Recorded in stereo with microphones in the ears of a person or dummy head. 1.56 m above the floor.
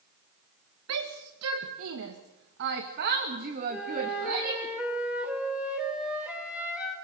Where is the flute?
5° right (ahead or behind), 5 m.